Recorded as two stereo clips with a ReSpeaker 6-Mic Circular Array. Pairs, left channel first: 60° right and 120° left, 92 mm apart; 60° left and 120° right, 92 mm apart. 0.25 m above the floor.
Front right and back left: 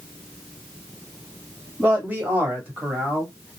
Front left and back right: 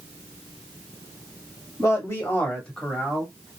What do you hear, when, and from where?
1.8 s a man speaking: 70° left, 1.4 m; by 3.6 s 175° left, 1.3 m